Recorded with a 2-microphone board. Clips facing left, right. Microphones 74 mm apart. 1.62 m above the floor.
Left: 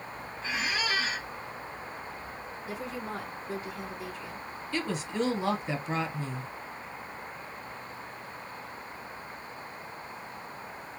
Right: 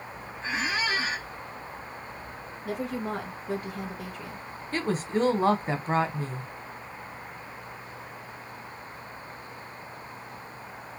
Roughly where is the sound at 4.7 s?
Right.